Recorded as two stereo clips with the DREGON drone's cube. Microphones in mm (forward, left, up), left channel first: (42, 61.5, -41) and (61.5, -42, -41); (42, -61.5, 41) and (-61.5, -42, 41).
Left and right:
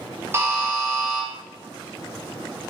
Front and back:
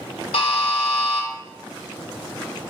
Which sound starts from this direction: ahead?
A buzzer, at 0.3 s.